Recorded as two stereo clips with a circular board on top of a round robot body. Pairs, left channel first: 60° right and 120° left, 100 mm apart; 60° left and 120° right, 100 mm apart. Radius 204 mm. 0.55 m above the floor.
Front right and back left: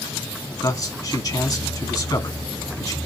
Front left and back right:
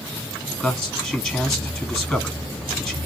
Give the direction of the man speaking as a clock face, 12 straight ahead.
1 o'clock.